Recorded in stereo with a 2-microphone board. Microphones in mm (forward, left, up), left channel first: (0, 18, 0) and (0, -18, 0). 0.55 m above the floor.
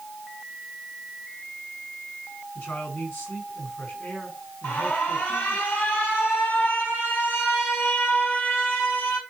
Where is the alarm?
75° left (ahead or behind), 3.5 m.